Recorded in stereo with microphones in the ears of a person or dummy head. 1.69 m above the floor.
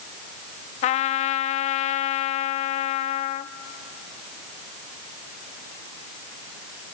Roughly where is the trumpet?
Left.